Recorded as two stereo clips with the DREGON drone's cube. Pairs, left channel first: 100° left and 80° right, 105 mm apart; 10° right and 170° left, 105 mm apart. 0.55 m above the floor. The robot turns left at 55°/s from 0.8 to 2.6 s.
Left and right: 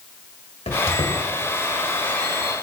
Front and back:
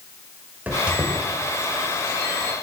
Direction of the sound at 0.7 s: 95° left.